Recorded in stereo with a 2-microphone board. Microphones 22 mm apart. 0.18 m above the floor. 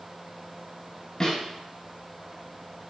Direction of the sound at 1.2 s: 35° left (ahead or behind).